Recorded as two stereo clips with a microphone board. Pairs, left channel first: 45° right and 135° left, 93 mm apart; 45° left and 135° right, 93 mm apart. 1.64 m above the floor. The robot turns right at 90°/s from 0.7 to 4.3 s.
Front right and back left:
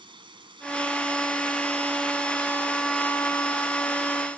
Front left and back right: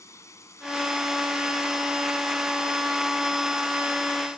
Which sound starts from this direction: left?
Running water, at 0.0 s.